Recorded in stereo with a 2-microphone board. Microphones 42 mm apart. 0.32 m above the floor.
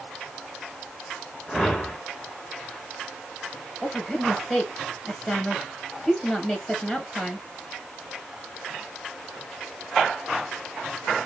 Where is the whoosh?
5° left (ahead or behind), 1.2 m.